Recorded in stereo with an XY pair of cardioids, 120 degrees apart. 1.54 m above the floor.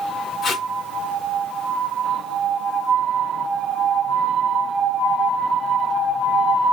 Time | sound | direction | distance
0.4 | tape being pulled | 50° left | 1.5 m